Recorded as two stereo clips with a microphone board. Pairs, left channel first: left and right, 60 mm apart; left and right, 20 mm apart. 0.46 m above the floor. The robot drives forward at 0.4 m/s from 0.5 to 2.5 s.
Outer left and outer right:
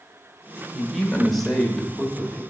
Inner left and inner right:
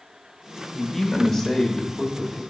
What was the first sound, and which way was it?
A man speaking, 5° left (ahead or behind).